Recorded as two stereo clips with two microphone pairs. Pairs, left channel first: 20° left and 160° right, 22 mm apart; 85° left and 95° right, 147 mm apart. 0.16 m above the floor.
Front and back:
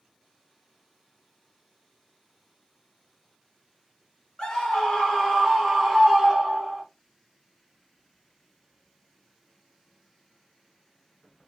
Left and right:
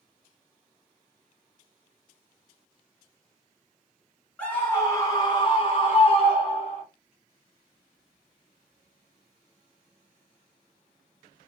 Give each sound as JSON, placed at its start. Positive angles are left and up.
{"t": 4.4, "sound": "a scream", "azimuth_deg": 10, "distance_m": 1.7}